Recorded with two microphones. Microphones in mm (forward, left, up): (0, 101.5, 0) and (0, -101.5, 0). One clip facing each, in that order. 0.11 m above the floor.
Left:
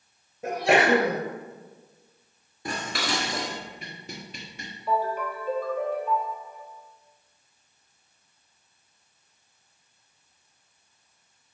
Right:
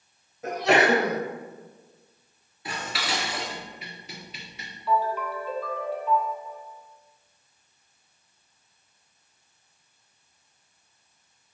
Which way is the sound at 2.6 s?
50° left (ahead or behind).